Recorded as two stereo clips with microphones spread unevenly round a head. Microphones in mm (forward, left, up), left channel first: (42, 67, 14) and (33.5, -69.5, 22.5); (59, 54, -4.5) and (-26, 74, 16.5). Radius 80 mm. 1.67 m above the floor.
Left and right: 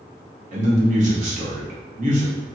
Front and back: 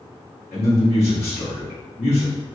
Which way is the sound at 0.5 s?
65° right.